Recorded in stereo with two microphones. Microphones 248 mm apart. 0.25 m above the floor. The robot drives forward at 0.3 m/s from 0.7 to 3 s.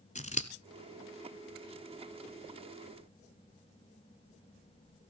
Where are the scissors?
30° left (ahead or behind), 1.1 m.